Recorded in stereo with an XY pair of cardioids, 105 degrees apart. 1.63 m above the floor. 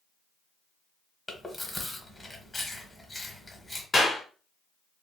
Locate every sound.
1.3 s chewing: 20° left, 0.9 m
3.9 s a clap: 35° left, 1.5 m